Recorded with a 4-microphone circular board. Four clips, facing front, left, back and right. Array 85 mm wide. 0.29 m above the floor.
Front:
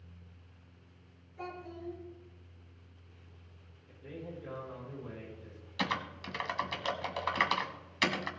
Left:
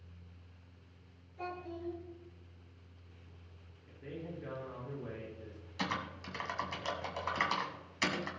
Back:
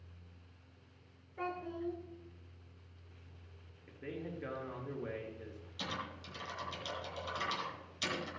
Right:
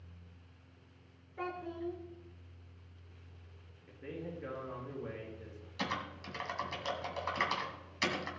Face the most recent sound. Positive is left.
turn(degrees=5)